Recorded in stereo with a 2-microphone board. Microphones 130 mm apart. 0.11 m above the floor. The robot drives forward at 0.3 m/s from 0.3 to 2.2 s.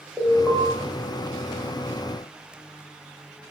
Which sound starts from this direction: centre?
An alarm, at 0.2 s.